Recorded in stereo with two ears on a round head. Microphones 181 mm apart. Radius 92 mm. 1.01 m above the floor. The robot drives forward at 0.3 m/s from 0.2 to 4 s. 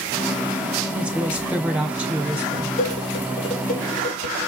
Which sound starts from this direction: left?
Dishes clattering, at 2.8 s.